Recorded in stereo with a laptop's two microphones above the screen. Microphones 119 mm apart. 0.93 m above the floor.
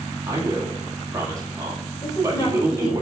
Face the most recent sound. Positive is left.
turn(degrees=45)  # may be behind; listen again after turning